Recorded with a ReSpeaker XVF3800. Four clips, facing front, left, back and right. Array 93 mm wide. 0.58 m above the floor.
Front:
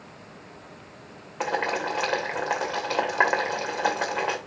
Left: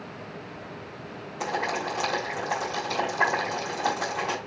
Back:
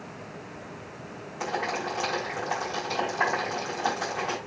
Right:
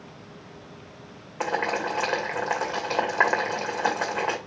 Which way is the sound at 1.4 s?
40° right.